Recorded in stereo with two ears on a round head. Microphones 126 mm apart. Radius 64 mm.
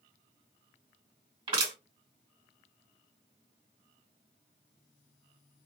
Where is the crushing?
40° right (ahead or behind), 2 m.